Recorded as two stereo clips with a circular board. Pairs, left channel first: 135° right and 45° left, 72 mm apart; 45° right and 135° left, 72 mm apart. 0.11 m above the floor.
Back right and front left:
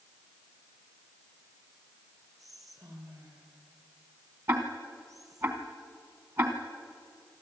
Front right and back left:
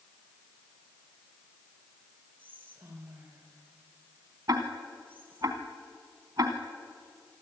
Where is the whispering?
75° left, 3.5 m.